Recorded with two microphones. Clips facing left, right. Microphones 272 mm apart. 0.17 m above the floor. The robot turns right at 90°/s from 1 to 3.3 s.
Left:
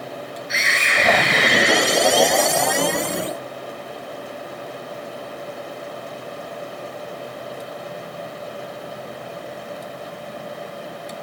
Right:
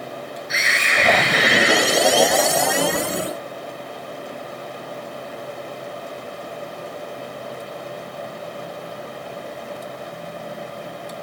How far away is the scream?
About 3 m.